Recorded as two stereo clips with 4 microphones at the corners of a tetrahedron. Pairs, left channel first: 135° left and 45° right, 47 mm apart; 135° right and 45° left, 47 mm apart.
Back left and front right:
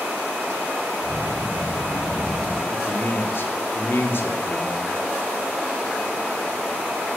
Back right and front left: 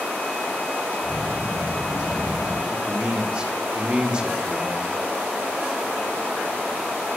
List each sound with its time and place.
1.0 s a child speaking: 130° left, 4 m; by 2.6 s 140° left, 5.5 m
2.7 s a man speaking: 110° left, 1.7 m